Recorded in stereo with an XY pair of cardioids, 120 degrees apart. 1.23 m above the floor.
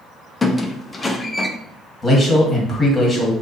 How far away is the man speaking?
About 1.7 m.